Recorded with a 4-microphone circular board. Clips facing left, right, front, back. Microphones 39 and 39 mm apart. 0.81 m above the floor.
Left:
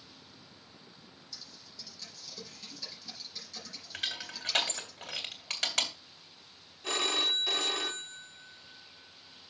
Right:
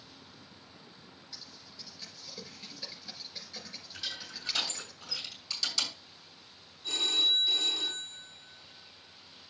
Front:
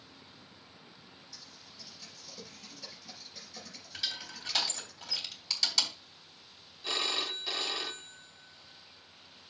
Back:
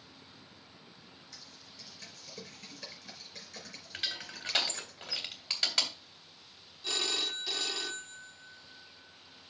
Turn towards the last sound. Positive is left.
turn(degrees=75)